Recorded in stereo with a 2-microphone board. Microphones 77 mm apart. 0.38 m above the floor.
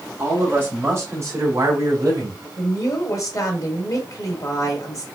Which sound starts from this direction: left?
A woman speaking, at 2.6 s.